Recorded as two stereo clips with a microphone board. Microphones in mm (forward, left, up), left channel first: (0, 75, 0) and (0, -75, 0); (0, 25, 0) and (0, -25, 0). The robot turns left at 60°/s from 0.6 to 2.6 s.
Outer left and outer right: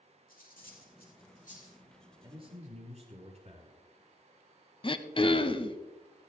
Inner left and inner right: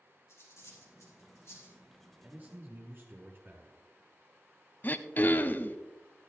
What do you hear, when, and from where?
0.3 s cutlery clinking: 65° left (ahead or behind), 4.5 m; by 1.8 s 40° left (ahead or behind), 4.5 m
2.2 s a man speaking: 25° right (ahead or behind), 5.5 m; by 3.8 s 50° right (ahead or behind), 5.5 m
4.8 s throat clearing: 35° left (ahead or behind), 0.6 m